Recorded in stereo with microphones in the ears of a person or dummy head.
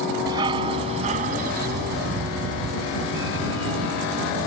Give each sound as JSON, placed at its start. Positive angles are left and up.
{"t": 0.3, "sound": "a dog barking", "side_deg": -25}